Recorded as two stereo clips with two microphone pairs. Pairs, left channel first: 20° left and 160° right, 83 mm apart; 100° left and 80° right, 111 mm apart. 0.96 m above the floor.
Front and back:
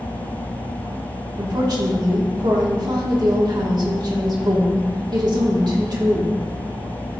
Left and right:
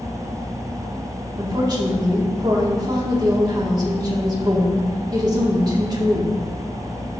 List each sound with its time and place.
1.4 s a woman speaking: 130° right, 2.5 m